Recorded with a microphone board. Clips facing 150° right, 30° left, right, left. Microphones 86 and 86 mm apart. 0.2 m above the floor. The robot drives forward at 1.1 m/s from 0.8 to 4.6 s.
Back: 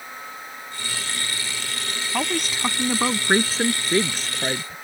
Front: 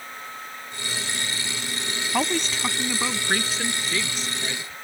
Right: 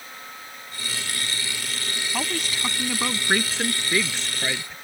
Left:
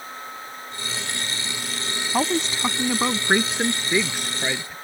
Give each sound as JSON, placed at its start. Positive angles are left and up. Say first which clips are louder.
{"t": 2.1, "sound": "a woman speaking", "louder": "front 1 dB, left 7 dB", "azimuth_deg": 100}